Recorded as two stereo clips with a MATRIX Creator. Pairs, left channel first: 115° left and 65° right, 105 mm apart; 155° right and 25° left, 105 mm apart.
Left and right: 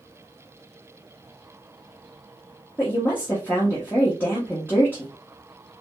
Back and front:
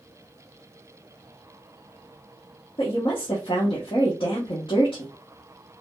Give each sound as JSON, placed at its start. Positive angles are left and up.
{"t": 2.8, "sound": "a woman speaking", "azimuth_deg": 180, "distance_m": 1.1}